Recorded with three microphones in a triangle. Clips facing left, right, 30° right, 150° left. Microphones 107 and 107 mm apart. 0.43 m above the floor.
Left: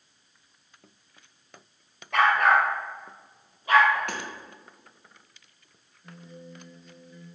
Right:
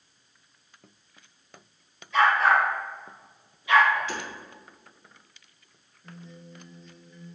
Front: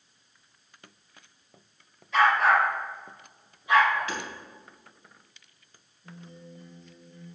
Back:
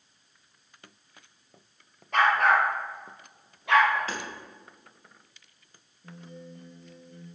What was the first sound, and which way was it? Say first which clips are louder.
A dog barking: even, front 1 dB; 115° left.